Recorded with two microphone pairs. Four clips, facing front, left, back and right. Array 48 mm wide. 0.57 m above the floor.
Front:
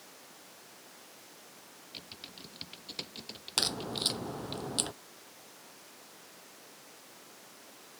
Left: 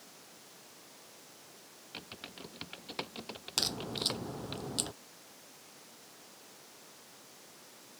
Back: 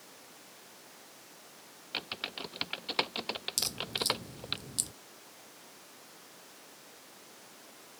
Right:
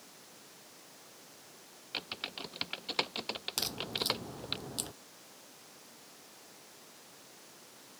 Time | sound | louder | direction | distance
1.9 | typing on a keyboard | right 6 dB, back 12 dB | 160° right | ?
3.6 | a crack | left 4 dB, front 8 dB | 10° left | ?